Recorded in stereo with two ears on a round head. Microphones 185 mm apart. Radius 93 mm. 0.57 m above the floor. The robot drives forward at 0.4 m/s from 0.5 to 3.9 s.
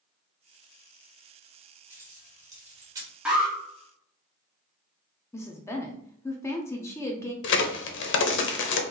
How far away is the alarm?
About 1.5 m.